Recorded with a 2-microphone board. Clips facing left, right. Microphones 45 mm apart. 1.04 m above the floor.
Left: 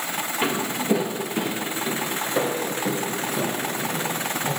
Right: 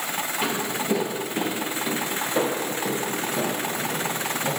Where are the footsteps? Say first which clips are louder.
Left 3 dB; 15° left (ahead or behind), 1.1 m; by 4.5 s 10° right (ahead or behind), 4 m.